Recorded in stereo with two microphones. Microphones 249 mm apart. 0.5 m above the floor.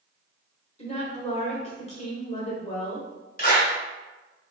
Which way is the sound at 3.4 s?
35° left (ahead or behind).